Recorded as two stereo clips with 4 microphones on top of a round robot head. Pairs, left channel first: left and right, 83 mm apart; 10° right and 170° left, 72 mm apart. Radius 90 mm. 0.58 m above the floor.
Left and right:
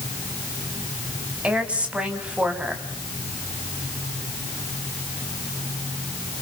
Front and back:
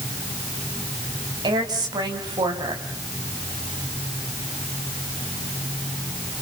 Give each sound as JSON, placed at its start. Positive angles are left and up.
{"t": 1.4, "sound": "a woman speaking", "azimuth_deg": -165, "distance_m": 4.0}